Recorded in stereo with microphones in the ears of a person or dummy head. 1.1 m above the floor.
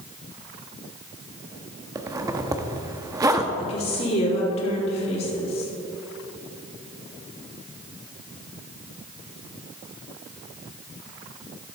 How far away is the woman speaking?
About 3 m.